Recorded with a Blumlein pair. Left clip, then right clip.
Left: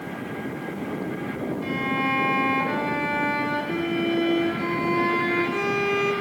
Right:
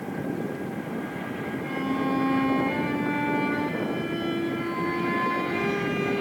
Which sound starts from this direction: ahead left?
A violin, at 1.6 s.